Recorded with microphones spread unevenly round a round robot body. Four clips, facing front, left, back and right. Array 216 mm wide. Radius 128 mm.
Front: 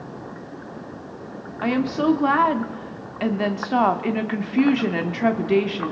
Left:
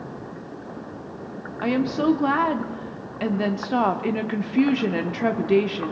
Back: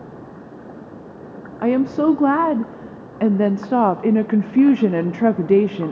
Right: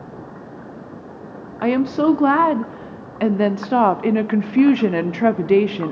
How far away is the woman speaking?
About 0.7 m.